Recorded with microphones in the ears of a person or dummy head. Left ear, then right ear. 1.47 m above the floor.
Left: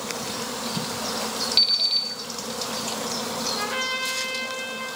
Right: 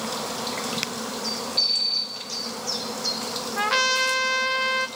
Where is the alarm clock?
50° left (ahead or behind), 2.0 m.